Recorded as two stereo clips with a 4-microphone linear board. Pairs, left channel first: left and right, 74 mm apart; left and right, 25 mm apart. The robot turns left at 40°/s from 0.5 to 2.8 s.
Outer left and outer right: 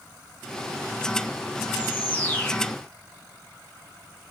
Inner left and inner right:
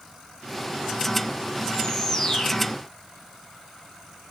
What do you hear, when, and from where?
1.7 s a bird: 25° left (ahead or behind), 1.8 m; by 2.7 s 15° left (ahead or behind), 1.8 m